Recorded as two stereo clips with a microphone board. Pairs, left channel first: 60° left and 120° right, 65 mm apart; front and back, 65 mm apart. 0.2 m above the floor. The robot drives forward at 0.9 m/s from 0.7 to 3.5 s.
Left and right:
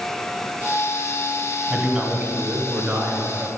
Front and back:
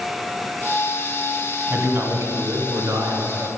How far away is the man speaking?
About 1.2 m.